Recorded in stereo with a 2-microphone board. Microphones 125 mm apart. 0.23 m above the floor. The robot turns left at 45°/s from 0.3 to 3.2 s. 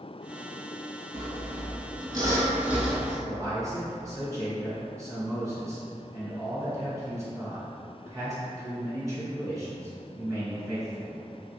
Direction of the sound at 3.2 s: 25° right (ahead or behind).